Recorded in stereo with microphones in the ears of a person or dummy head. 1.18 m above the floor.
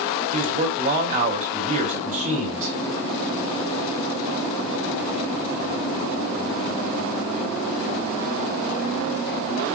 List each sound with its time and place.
0.3 s a man speaking: 40° right (ahead or behind), 5 m